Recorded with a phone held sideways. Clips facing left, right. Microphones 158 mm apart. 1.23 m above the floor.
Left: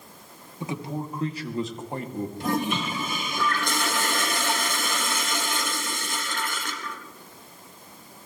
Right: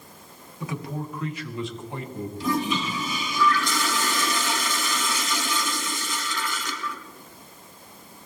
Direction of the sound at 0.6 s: 25° left (ahead or behind).